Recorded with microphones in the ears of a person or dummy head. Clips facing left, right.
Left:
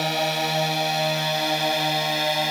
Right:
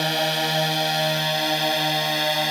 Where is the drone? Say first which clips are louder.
Even; 10° right (ahead or behind); by 2.5 s 5° right (ahead or behind).